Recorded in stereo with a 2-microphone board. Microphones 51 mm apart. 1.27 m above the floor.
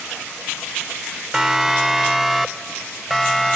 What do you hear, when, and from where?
1.3 s a siren: 10° right (ahead or behind); by 3.6 s 5° left (ahead or behind)